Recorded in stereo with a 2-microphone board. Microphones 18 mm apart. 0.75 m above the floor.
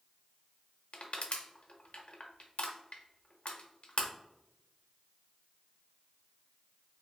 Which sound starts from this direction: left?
Crushing, at 0.9 s.